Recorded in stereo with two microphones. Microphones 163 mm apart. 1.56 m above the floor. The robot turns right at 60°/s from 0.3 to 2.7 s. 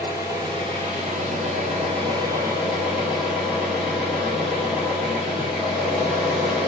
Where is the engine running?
150° right, 1.2 m; by 6.7 s 10° right, 1.2 m.